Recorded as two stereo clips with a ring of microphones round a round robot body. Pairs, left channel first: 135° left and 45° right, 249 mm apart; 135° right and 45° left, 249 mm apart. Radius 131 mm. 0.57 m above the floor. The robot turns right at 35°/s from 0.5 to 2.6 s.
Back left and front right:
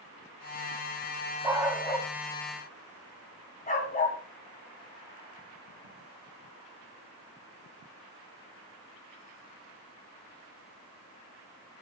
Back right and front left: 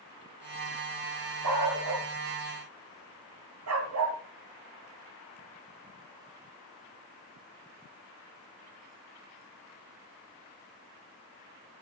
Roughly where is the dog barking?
Ahead left.